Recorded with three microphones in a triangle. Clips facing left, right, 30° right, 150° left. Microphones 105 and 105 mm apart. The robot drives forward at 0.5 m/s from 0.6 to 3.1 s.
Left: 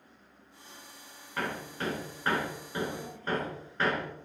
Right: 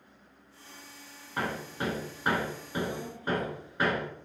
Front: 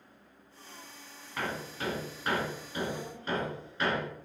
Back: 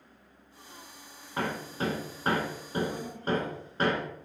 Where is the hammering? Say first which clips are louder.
Right 2 dB, back 4 dB; 155° right, 1.3 m; by 4.1 s 165° right, 2 m.